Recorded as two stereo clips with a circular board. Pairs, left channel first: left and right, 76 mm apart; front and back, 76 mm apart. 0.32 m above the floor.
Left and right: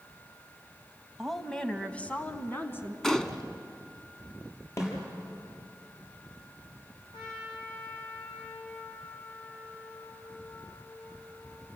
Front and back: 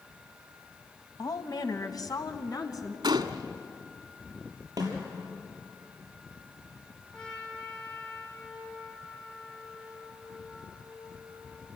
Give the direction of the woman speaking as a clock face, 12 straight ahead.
12 o'clock.